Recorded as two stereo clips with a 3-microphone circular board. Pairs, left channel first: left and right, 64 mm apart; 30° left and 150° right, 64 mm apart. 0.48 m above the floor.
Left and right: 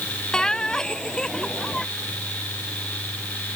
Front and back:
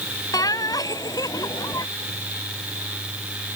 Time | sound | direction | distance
0.3 | laughter | 10° left | ?